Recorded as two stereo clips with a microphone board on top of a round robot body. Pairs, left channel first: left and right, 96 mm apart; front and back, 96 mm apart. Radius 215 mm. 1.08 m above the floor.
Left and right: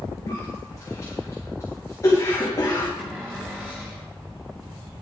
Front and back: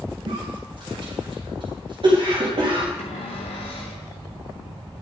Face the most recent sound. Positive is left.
turn(degrees=-20)